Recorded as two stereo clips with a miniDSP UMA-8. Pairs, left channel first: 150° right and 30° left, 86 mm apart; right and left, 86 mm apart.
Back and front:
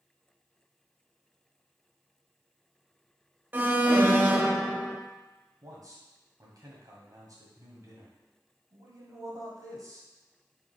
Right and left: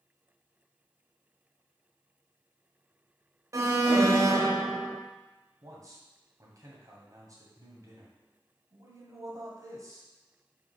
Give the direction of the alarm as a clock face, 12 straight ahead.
9 o'clock.